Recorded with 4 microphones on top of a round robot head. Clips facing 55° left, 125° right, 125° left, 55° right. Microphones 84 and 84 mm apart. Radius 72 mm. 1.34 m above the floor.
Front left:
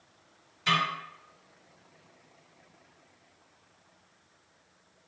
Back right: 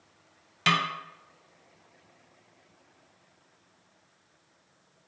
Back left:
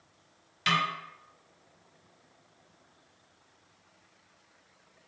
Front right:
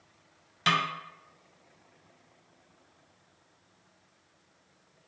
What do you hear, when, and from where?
0.7 s a snare drum: 115° right, 0.6 m